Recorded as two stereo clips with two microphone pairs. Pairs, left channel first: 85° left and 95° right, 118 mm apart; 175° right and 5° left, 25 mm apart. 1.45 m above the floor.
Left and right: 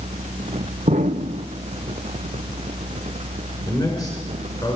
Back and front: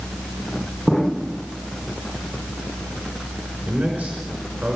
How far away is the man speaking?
About 5 m.